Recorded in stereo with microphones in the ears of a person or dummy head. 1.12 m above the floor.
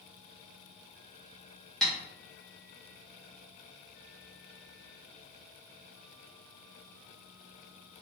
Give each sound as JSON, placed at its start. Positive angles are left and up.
{"t": 1.8, "sound": "tapping", "side_deg": 5, "distance_m": 1.2}